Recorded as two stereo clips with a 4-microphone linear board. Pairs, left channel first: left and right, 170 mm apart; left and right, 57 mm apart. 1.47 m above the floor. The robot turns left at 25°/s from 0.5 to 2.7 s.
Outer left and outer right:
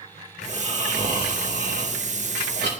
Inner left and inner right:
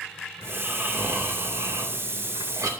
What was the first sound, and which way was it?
Snoring, 35° right.